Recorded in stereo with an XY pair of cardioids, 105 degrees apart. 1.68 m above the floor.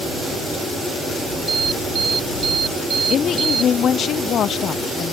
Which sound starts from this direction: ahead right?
An alarm, at 1.5 s.